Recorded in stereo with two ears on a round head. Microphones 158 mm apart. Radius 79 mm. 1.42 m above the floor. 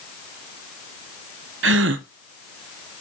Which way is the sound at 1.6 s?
70° right (ahead or behind).